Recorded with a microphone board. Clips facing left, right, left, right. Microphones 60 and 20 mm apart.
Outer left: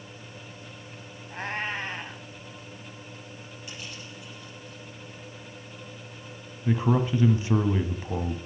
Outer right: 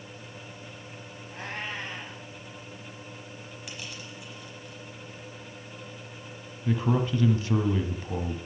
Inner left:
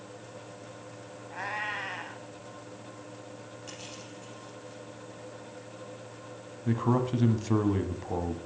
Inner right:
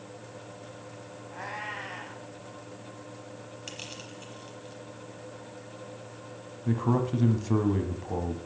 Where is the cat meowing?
35° left (ahead or behind), 3.5 m.